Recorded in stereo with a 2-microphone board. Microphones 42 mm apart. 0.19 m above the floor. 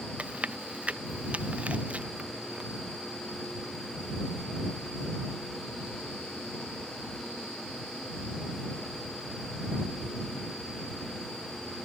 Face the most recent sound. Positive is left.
turn(degrees=-30)  # may be behind; listen again after turning